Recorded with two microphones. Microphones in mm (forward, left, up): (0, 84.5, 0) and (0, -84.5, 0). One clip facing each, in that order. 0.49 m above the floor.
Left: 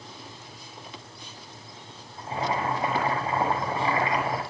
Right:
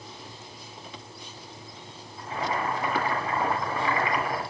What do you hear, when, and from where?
2.2 s boiling: 25° left (ahead or behind), 6.5 m